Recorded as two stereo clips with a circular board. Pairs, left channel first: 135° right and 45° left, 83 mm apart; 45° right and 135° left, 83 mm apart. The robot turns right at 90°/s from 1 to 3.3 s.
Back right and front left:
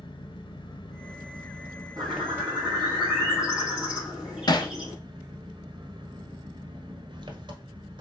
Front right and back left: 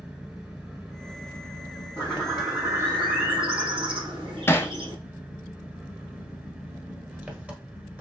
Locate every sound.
0.0 s an engine running: 140° right, 1.3 m; by 8.0 s 65° left, 1.3 m
2.0 s a bird: straight ahead, 4 m; by 5.0 s 125° left, 4 m
4.5 s hammering: 105° right, 0.7 m